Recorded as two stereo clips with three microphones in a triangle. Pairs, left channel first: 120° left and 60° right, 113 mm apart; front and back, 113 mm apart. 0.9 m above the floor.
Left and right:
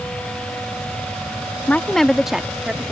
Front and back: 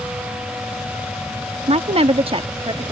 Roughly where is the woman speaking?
Behind.